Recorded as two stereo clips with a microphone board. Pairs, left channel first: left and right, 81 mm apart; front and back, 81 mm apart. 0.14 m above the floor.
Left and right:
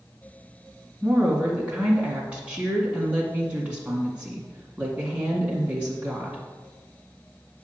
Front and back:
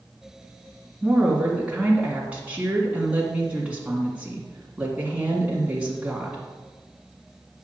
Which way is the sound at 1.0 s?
135° right.